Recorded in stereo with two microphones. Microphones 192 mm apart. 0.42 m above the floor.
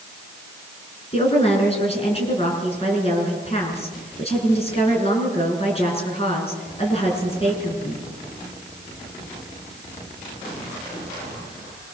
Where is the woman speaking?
30° left (ahead or behind), 6.5 m.